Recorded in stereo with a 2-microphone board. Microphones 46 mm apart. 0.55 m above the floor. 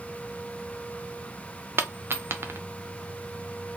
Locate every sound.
1.8 s a dropped coin: 60° right (ahead or behind), 0.7 m